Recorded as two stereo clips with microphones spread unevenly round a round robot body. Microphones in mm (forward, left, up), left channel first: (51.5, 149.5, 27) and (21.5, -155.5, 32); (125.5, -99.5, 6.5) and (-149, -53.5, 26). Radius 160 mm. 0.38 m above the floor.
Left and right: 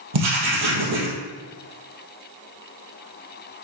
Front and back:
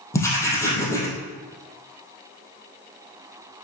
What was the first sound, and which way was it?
Writing, 90° right.